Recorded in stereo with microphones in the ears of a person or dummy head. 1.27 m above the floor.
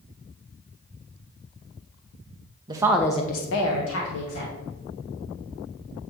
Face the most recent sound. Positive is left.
turn(degrees=80)